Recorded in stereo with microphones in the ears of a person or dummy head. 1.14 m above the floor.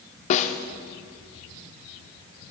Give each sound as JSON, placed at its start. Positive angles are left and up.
{"t": 0.3, "sound": "a snare drum", "side_deg": 40, "distance_m": 0.9}